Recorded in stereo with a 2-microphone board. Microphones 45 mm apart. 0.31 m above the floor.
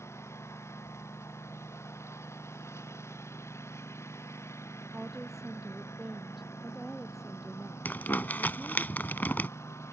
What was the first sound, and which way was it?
A lawn mower, 80° left.